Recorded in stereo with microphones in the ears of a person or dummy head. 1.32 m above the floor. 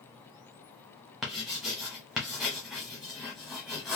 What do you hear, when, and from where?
1.2 s writing: centre (ahead or behind), 0.7 m